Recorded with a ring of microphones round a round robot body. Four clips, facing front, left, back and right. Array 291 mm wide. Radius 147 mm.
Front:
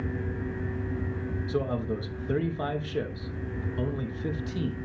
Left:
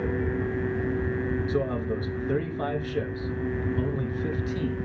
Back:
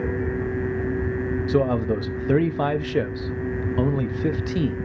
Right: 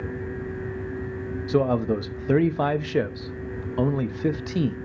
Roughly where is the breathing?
I don't hear breathing.